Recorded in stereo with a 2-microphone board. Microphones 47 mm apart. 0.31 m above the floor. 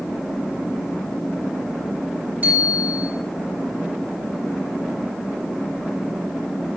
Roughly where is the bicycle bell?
Right.